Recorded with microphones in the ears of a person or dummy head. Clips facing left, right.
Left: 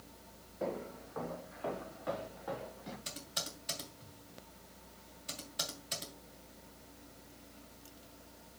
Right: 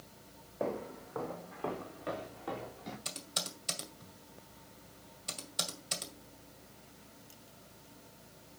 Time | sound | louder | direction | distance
0.6 | footsteps | right 2 dB | 65° right (ahead or behind) | 3 m
3.0 | typing on a keyboard | right 1 dB | 55° right (ahead or behind) | 2 m